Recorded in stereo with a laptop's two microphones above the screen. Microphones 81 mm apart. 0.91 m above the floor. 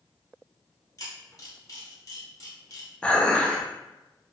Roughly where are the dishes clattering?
Centre.